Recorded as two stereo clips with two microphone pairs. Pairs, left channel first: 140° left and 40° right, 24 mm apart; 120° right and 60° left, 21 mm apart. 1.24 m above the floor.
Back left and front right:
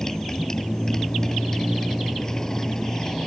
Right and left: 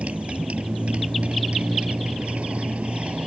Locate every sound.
0.0 s a motorcycle: 70° left